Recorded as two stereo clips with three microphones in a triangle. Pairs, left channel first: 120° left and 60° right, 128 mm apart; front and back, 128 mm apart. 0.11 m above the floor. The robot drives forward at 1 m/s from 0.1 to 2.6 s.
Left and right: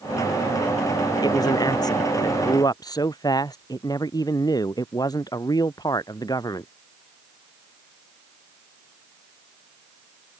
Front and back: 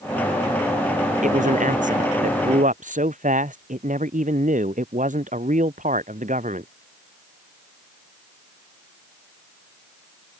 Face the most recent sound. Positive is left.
turn(degrees=180)